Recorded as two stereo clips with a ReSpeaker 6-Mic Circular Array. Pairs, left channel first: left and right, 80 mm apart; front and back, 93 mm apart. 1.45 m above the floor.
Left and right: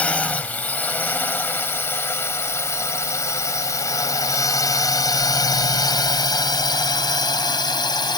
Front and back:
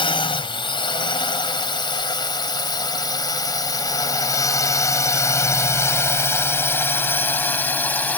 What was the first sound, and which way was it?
A drone, 20° left.